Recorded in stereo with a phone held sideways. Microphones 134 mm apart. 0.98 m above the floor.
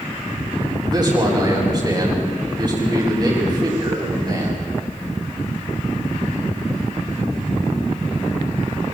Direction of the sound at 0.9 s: 30° right (ahead or behind).